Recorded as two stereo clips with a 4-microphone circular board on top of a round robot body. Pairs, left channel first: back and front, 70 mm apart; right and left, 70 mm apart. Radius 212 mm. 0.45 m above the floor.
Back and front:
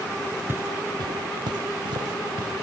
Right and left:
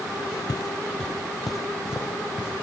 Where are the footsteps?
60° right, 0.6 m; by 2.5 s 15° left, 2.0 m.